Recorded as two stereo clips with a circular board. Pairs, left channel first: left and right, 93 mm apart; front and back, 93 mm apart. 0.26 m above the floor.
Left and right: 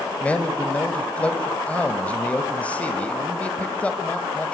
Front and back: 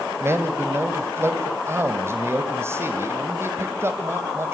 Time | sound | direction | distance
0.2 | a man speaking | 150° left | 1.6 m